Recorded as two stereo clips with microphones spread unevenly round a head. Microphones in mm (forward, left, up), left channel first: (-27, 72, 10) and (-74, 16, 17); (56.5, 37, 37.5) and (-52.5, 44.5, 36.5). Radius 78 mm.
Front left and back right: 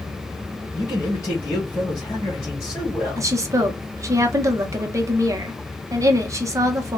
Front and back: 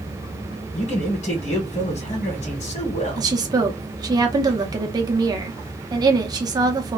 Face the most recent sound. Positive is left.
turn(degrees=-155)